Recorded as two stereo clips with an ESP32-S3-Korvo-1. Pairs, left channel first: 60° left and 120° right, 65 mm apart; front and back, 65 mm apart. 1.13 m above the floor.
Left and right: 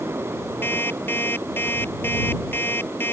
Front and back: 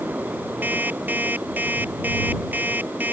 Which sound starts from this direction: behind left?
An alarm clock, at 0.6 s.